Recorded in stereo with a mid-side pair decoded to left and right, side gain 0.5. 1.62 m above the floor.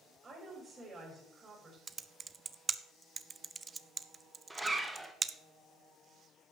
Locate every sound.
0.2 s a woman speaking: 30° right, 5.5 m
1.9 s typing on a keyboard: 30° right, 0.7 m
4.5 s a zipper: 10° right, 1.9 m